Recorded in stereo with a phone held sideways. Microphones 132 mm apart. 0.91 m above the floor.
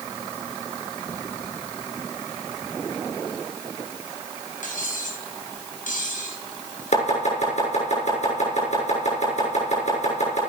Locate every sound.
4.6 s cutlery clinking: 85° left, 4 m
6.9 s chopping: 60° left (ahead or behind), 6.5 m